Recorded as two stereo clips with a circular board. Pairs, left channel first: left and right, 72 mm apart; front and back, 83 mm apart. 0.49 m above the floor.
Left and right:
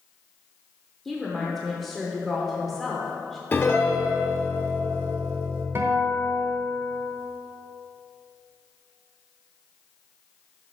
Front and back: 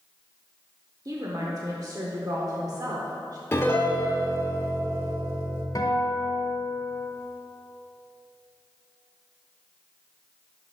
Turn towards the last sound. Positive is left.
turn(degrees=-40)